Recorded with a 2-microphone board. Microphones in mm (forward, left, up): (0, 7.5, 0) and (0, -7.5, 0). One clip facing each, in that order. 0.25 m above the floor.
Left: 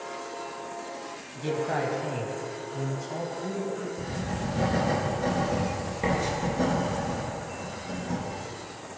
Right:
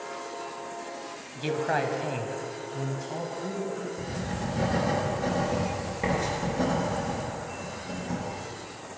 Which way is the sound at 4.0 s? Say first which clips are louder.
Left 1 dB; centre (ahead or behind).